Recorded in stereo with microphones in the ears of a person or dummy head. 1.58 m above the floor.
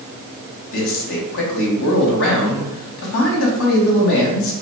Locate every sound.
0.7 s a man speaking: 75° left (ahead or behind), 1.1 m